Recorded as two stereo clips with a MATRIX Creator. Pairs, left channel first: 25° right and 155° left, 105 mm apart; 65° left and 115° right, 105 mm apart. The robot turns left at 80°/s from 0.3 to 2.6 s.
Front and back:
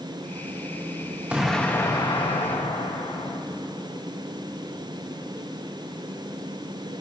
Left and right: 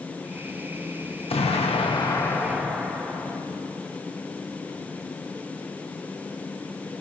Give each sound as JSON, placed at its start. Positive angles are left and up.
{"t": 1.3, "sound": "an explosion", "azimuth_deg": 80, "distance_m": 1.1}